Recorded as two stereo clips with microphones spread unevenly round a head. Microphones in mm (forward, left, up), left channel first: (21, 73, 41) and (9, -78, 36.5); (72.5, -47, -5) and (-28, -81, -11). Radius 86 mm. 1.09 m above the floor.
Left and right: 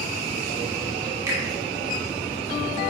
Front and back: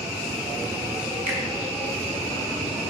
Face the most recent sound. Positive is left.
turn(degrees=-165)